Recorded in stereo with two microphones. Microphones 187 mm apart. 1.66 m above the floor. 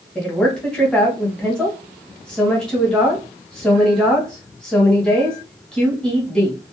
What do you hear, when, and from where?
0.1 s a woman speaking: 5° left (ahead or behind), 1.0 m